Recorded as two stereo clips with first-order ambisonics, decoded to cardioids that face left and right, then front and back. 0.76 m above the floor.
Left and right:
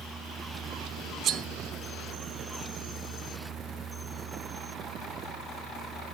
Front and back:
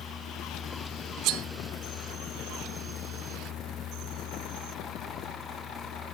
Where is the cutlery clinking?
145° right, 0.6 m.